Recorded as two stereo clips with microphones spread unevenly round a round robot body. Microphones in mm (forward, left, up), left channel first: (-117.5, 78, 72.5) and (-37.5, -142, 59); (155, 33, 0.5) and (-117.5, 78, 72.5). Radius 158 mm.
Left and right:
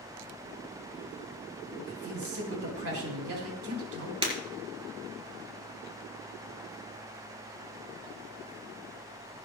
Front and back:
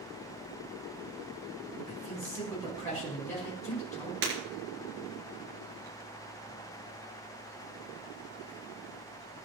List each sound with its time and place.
1.9 s a man speaking: 85° right, 4.5 m
4.2 s breaking glass: 135° right, 4.5 m